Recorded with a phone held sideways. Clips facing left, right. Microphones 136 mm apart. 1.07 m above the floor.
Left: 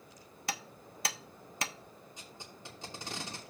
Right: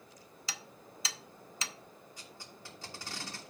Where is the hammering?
55° left (ahead or behind), 0.6 m.